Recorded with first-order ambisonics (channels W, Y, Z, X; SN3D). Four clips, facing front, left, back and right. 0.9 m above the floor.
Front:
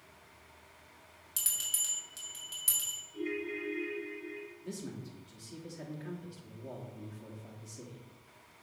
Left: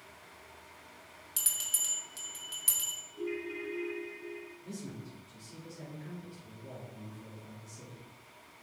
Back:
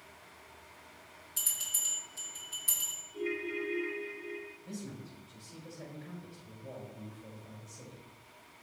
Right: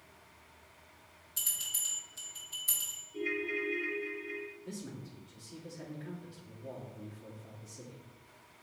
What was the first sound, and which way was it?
A bell, 50° left.